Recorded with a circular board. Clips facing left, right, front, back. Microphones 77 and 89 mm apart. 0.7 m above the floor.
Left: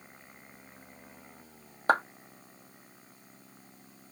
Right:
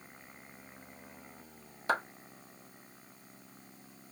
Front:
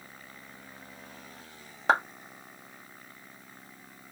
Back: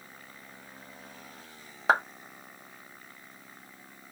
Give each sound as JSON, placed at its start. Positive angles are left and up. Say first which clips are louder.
{"t": 1.9, "sound": "a clap", "louder": "left 6 dB, even", "azimuth_deg": 95, "distance_m": 1.0}